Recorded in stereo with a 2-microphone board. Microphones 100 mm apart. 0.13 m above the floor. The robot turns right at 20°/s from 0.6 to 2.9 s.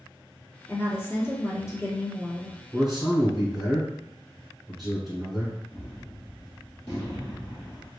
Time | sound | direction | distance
0.7 | a woman speaking | 50° left | 1.4 m
2.7 | a man speaking | centre (ahead or behind) | 1.8 m
5.7 | a gunshot | 35° left (ahead or behind) | 1.7 m